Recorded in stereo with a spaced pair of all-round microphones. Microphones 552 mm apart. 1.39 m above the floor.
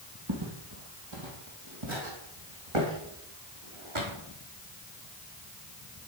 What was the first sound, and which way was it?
Footsteps, 45° right (ahead or behind).